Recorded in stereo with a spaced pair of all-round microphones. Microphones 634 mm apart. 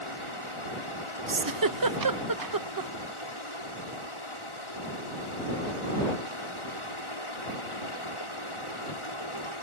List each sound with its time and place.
0.0 s running water: 50° left (ahead or behind)
1.3 s a giggle: 35° right (ahead or behind)